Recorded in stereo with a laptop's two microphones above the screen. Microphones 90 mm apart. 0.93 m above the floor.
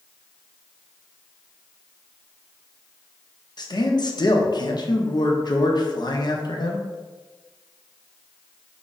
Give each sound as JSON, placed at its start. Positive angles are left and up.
{"t": 3.6, "sound": "a man speaking", "side_deg": 50, "distance_m": 0.7}